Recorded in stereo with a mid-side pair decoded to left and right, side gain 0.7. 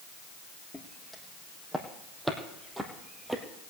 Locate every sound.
0.7 s footsteps: 5° left, 4 m; by 3.4 s 5° right, 2.5 m